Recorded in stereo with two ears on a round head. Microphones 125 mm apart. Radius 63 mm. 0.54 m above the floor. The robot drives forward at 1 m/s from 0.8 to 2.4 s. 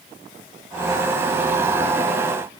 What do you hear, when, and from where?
Only background noise.